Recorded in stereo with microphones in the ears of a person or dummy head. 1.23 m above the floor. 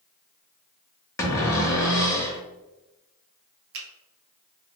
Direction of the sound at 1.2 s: 10° left (ahead or behind).